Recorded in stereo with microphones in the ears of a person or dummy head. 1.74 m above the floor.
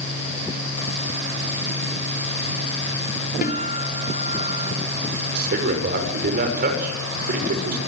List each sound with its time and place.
3.4 s a guitar: 50° left (ahead or behind), 3.5 m
5.3 s a man speaking: 50° right (ahead or behind), 6.5 m